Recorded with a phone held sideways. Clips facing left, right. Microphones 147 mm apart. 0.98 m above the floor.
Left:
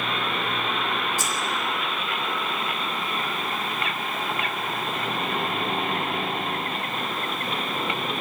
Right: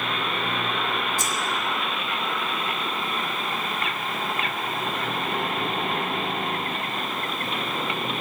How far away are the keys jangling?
About 3 m.